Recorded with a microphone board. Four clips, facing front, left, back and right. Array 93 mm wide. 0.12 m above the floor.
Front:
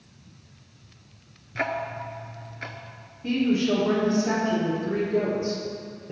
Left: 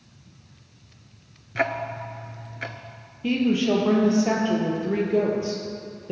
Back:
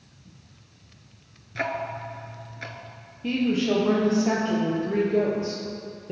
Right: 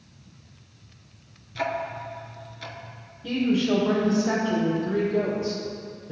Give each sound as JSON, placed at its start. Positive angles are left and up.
{"t": 1.6, "sound": "ticking", "azimuth_deg": 85, "distance_m": 0.6}
{"t": 3.2, "sound": "a woman speaking", "azimuth_deg": 100, "distance_m": 2.5}